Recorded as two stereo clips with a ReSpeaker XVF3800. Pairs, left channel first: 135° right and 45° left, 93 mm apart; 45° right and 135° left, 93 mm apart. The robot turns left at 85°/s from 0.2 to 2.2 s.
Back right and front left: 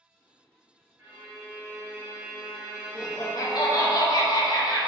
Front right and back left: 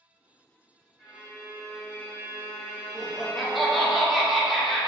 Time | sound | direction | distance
1.0 | a violin | 80° left | 1.7 m
3.0 | laughter | 135° right | 0.7 m